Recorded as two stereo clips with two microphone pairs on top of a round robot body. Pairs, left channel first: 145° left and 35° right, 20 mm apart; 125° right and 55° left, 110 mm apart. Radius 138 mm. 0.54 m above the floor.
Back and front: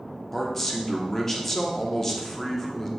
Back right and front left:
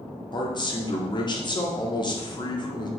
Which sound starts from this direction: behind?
A man speaking, at 0.3 s.